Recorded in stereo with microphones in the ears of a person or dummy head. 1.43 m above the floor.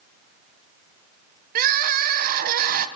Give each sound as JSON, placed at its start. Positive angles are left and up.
{"t": 1.6, "sound": "crying", "side_deg": -50, "distance_m": 0.8}